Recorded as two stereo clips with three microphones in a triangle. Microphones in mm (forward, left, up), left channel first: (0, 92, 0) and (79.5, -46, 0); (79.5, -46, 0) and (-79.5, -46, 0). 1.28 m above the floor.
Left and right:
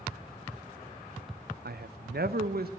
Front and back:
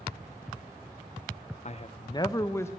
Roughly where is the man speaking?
Ahead right.